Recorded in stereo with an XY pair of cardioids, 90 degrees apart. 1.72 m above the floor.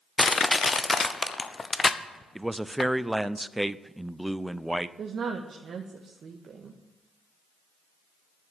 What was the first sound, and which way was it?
Crushing, 35° left.